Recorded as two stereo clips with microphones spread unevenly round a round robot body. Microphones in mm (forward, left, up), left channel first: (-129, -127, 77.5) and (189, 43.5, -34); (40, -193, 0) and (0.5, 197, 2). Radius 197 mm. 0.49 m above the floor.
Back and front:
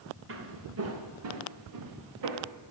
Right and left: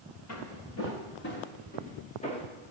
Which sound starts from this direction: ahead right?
Footsteps, at 0.3 s.